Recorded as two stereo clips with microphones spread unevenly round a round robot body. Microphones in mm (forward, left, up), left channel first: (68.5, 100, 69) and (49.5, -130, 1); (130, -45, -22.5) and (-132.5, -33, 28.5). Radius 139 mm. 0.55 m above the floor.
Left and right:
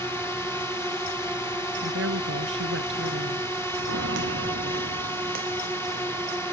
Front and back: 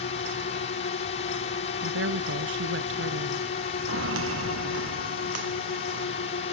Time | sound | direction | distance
0.0 | a drone | 15° right | ?
1.8 | a woman speaking | 140° right | ?
3.9 | footsteps | 145° right | ?